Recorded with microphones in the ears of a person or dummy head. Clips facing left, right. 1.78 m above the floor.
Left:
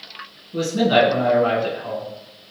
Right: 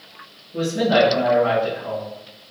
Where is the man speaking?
45° left (ahead or behind), 1.5 m.